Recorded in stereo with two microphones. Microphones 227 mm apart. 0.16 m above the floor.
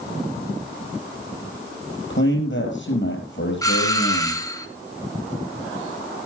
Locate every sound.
2.1 s a man speaking: 60° left (ahead or behind), 4 m
3.6 s a doorbell: 15° left (ahead or behind), 1.7 m